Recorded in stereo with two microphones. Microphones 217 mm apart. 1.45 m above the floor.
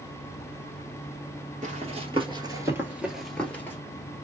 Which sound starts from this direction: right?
Running footsteps, at 1.6 s.